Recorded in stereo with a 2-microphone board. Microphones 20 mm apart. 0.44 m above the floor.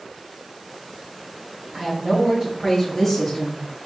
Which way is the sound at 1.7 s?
35° right (ahead or behind).